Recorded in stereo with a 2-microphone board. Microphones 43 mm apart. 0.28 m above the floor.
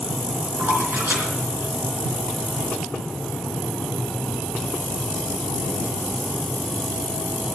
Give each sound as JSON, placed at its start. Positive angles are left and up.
{"t": 0.6, "sound": "a splash", "side_deg": -55, "distance_m": 4.0}